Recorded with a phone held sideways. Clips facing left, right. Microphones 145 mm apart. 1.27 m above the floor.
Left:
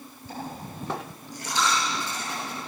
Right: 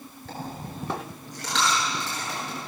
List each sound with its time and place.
0.3 s a dropped coin: 85° right, 9.5 m